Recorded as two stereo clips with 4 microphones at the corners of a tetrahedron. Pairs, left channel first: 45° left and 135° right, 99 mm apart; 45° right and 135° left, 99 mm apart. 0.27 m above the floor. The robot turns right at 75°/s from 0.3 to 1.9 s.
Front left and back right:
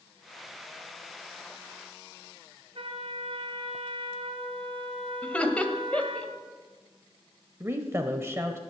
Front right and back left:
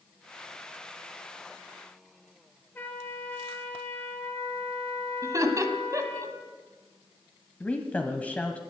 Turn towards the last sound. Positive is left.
turn(degrees=-105)